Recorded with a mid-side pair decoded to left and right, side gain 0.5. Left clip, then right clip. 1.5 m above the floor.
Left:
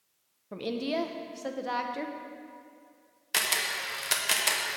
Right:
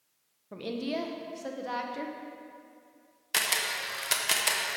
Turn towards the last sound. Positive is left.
turn(degrees=0)